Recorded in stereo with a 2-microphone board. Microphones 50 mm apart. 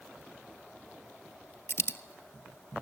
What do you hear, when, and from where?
1.7 s a dropped coin: 60° left (ahead or behind), 0.7 m